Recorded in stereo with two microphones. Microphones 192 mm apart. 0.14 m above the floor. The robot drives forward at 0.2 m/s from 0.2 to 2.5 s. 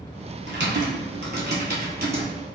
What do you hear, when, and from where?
0.5 s typing on a keyboard: 65° right (ahead or behind), 1.0 m; by 2.3 s 55° right (ahead or behind), 1.2 m